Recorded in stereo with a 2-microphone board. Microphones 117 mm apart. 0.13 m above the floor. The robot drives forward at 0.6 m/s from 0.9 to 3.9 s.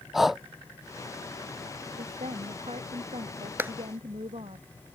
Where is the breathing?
5° right (ahead or behind).